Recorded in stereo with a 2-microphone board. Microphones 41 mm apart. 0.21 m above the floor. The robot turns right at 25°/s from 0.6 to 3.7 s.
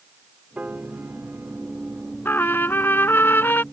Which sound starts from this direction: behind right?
A piano, at 0.6 s.